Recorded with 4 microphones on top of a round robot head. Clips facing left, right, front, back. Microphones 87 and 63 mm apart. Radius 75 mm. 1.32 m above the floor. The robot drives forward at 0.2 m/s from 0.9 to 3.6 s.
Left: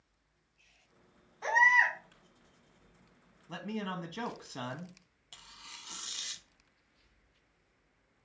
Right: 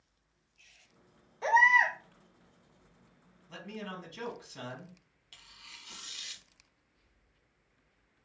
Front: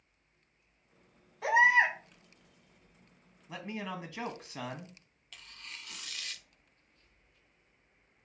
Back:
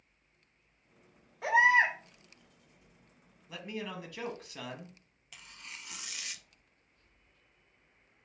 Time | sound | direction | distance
1.4 | a baby crying | 95° right | 1.9 m
3.5 | a man speaking | 65° left | 0.7 m
5.3 | tearing paper | 115° left | 0.5 m